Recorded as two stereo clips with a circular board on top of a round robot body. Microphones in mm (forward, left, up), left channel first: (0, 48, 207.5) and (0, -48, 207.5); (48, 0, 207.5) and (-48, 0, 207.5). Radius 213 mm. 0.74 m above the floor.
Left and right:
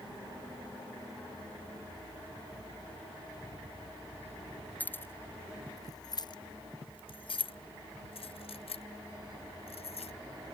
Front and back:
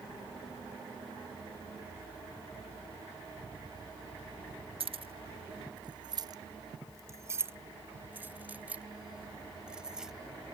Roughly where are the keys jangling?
Behind.